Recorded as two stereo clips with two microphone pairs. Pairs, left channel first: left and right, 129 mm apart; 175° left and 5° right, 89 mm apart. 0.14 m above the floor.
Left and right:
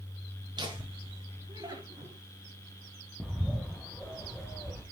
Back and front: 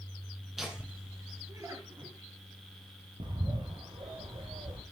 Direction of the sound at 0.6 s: 90° right.